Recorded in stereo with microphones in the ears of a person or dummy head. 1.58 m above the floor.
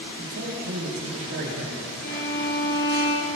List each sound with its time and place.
0.2 s a man speaking: 65° right (ahead or behind), 8.5 m
2.0 s a violin: 55° left (ahead or behind), 5 m